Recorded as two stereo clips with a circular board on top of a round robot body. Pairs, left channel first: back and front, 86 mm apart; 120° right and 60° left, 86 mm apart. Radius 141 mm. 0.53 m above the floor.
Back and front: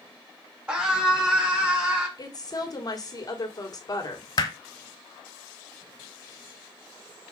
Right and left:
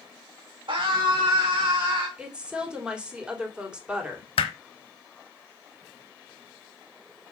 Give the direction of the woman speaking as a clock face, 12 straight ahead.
7 o'clock.